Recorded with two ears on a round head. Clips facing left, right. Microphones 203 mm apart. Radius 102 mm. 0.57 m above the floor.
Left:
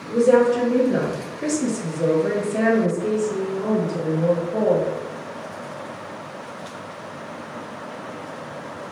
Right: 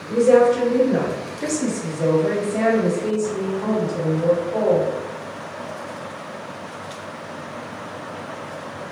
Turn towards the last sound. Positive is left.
turn(degrees=5)  # may be behind; listen again after turning